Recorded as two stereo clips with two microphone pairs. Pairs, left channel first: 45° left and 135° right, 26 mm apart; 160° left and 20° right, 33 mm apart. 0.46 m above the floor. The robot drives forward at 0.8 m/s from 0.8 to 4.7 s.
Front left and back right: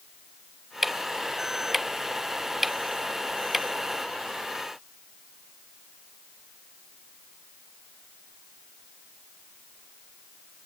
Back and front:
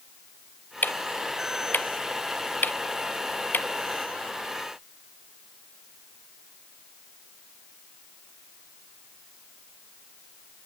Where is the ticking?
140° left; by 3.7 s 145° left.